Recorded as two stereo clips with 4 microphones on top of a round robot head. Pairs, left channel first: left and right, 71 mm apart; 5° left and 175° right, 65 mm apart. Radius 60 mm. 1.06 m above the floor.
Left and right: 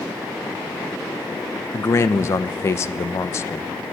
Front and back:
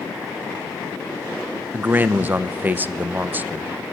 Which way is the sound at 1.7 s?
130° left.